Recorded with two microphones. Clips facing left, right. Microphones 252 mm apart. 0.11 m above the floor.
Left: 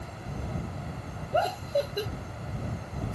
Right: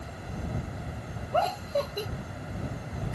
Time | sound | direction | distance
1.3 | laughter | 15° left (ahead or behind) | ?